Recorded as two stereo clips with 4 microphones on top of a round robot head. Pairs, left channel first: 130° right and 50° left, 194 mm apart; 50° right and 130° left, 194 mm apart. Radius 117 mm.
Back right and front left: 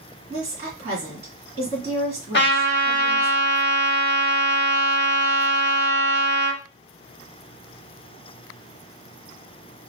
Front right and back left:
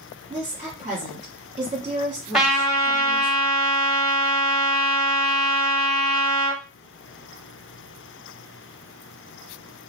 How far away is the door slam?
I don't hear a door slam.